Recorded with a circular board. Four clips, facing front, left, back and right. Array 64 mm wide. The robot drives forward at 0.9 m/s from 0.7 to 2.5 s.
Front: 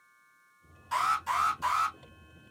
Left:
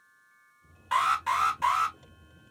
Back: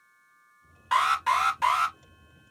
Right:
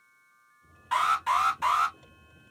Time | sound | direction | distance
0.9 | an alarm | 175° left | 1.3 m